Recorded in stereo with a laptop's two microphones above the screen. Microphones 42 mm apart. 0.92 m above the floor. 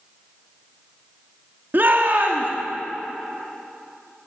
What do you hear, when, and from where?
1.7 s a shout: 50° right (ahead or behind), 1.4 m